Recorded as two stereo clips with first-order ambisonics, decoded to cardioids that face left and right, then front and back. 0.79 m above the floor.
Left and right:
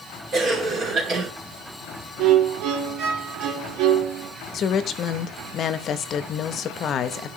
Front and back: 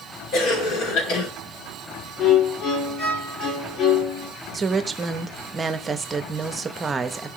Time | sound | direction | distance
0.3 | a cough | 35° right | 2 m
2.2 | a violin | 60° right | 1.5 m
4.5 | a woman speaking | 115° left | 0.6 m